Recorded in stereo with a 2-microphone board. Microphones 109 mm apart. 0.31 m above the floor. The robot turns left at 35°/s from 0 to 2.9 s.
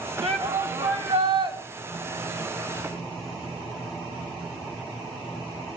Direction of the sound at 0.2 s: 80° right.